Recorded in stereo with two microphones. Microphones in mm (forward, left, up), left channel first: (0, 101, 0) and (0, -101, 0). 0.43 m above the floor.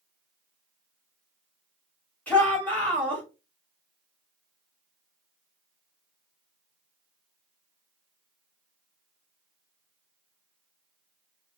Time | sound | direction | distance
2.3 | a shout | 10° left (ahead or behind) | 1.9 m